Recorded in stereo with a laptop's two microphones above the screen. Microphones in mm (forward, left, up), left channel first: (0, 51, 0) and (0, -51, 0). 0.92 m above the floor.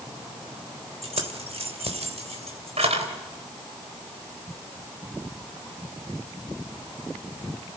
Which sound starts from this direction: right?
Keys jangling, at 1.0 s.